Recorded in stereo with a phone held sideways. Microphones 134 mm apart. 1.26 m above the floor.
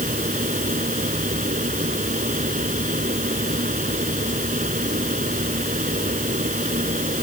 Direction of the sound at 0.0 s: 75° right (ahead or behind).